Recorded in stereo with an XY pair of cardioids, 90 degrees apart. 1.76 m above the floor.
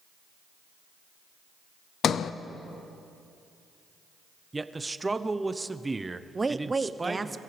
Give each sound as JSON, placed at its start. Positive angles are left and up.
{"t": 2.0, "sound": "a sliding door", "azimuth_deg": 65, "distance_m": 0.6}
{"t": 4.5, "sound": "a man speaking", "azimuth_deg": -20, "distance_m": 0.9}
{"t": 6.3, "sound": "a woman speaking", "azimuth_deg": -25, "distance_m": 0.8}